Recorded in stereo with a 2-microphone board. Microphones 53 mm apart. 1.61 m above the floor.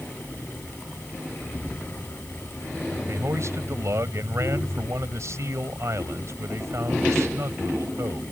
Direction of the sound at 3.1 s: 65° right (ahead or behind).